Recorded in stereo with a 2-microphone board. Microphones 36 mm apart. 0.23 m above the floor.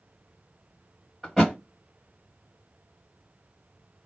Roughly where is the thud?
Centre.